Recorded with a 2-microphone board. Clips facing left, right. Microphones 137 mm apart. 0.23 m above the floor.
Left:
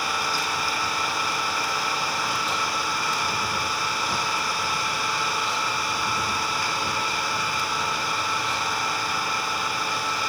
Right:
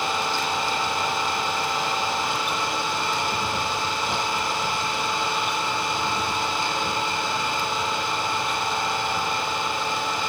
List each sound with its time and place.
0.0 s an engine running: 20° right (ahead or behind), 5.5 m